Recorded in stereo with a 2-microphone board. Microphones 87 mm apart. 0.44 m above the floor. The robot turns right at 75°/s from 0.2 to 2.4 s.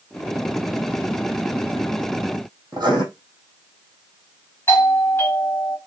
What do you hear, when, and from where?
2.7 s writing: 45° right (ahead or behind), 3 m
4.7 s a doorbell: 25° left (ahead or behind), 1.8 m